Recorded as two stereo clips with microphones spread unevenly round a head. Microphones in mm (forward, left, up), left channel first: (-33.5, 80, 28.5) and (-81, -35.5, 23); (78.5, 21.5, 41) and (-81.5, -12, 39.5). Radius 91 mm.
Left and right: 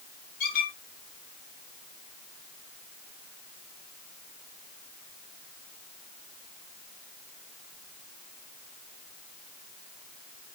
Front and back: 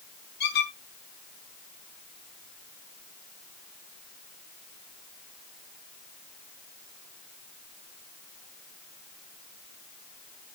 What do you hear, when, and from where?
0.4 s a squeak: 40° left, 4 m